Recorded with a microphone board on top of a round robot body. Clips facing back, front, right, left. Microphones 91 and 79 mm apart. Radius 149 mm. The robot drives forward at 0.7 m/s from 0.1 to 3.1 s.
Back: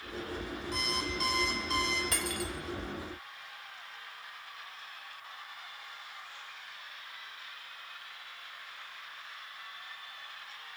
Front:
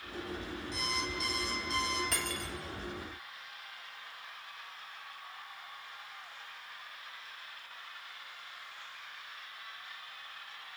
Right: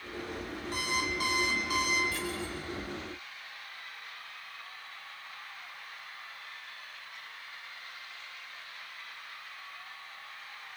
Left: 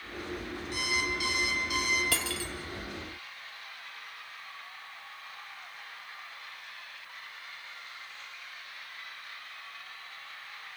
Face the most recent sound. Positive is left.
turn(degrees=110)